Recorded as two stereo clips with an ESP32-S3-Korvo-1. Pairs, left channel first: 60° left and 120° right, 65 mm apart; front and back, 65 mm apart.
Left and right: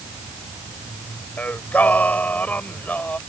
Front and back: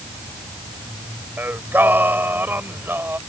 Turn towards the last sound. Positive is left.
turn(degrees=125)